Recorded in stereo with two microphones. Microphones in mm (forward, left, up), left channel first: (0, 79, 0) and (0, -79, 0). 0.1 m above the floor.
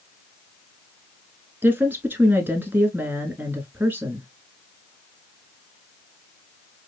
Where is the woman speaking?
10° right (ahead or behind), 1.1 m.